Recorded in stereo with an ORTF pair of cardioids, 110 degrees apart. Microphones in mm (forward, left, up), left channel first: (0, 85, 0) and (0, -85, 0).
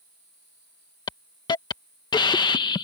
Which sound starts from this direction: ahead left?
A hiss, at 1.1 s.